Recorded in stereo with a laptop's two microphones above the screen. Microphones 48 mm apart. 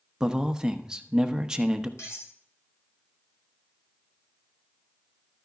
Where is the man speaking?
10° right (ahead or behind), 0.9 m.